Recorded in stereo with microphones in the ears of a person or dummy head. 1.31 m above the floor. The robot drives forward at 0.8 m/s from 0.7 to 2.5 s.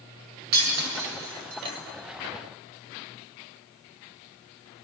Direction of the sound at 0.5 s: 55° right (ahead or behind).